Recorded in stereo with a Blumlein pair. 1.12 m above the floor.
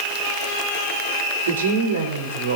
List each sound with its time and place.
1.5 s a woman speaking: 60° right, 2.5 m; by 2.6 s 75° right, 4 m